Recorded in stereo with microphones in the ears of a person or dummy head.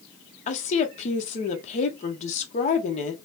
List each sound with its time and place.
0.5 s a woman speaking: 40° left (ahead or behind), 0.7 m